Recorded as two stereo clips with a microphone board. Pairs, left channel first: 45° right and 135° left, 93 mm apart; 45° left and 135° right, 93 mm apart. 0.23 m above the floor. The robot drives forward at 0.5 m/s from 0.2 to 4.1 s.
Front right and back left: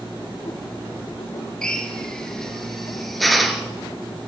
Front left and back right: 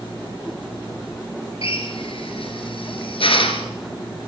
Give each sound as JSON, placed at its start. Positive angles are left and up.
{"t": 1.6, "sound": "a drill", "azimuth_deg": 35, "distance_m": 4.0}